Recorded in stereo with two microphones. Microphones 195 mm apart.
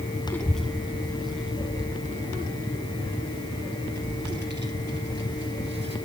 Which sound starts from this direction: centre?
A child speaking, at 0.3 s.